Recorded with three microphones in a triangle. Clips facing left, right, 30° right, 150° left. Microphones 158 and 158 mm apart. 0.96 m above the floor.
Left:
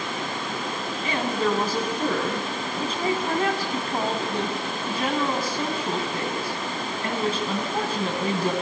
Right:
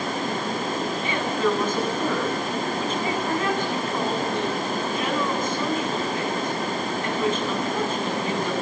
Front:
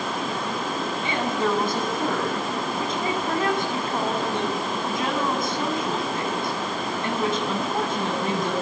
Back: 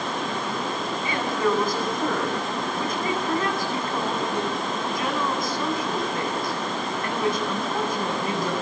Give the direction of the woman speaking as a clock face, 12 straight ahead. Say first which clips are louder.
Left 1 dB, back 1 dB; 11 o'clock.